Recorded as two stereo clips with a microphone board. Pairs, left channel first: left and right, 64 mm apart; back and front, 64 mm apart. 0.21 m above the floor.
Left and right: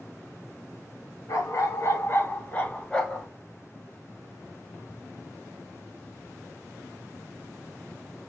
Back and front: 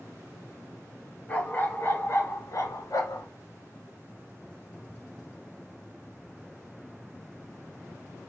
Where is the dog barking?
115° left, 1.1 m; by 3.3 s 175° left, 1.1 m.